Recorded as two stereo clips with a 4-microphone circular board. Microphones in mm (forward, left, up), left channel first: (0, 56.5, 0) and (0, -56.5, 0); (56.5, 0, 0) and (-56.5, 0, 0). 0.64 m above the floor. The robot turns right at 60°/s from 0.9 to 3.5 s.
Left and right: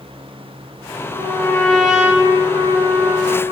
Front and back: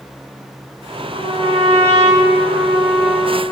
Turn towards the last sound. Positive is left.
turn(degrees=-75)